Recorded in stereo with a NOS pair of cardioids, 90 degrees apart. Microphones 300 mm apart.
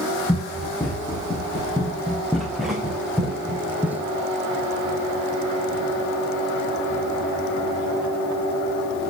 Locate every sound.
0.3 s running footsteps: 5° left, 6.5 m; by 4.0 s 5° right, 2.5 m